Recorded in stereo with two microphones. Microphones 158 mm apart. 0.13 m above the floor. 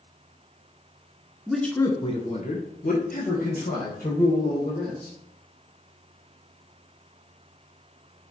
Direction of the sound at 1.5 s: 5° right (ahead or behind).